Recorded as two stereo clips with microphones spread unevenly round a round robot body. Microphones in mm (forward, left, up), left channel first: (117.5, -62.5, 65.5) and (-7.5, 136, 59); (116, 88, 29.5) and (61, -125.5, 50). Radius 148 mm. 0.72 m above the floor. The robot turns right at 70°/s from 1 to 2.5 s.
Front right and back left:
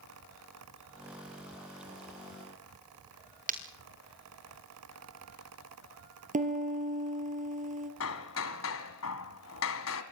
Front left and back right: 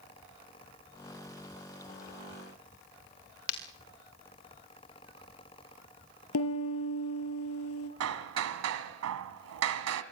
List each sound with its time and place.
3.5 s breaking glass: 65° left, 5 m
6.3 s a piano: 65° left, 5 m
8.0 s hammering: 100° right, 1.7 m